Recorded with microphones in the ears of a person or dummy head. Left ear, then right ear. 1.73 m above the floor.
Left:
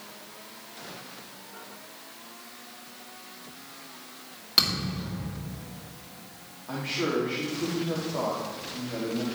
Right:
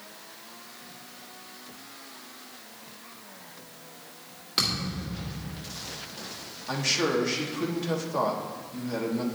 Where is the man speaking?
80° right, 1.7 m.